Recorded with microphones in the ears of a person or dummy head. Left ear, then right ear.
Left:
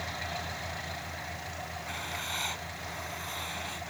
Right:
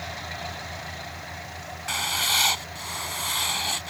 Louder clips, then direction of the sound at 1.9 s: Right 13 dB; 45° right (ahead or behind).